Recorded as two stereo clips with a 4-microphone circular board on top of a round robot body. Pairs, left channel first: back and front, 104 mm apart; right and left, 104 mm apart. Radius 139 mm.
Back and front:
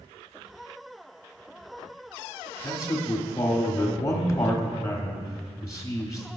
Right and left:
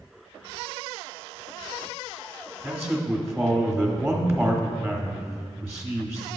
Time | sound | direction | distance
2.6 | a man speaking | 155° left | 1.4 m